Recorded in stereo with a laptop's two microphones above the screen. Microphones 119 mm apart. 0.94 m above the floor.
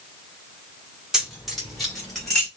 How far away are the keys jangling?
About 1.7 m.